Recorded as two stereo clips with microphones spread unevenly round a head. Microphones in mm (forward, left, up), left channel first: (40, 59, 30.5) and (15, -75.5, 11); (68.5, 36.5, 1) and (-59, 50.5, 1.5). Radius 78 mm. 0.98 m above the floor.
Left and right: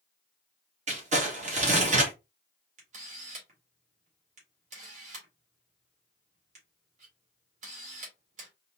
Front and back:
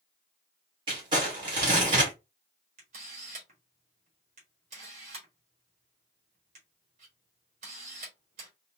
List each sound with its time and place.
0.9 s crumpling: 125° right, 1.7 m
2.8 s a camera shutter: 135° right, 1.7 m